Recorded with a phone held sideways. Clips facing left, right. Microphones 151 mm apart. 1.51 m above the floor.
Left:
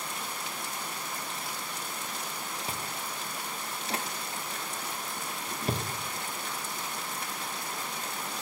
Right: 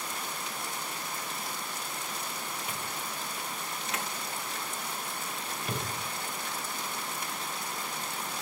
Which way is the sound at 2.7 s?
35° left (ahead or behind).